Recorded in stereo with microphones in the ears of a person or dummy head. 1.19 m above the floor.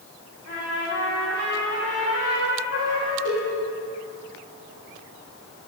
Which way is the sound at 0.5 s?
75° left (ahead or behind).